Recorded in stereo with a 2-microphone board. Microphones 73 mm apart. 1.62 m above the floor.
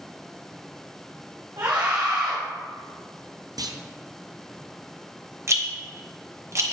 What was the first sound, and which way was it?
A scream, 80° right.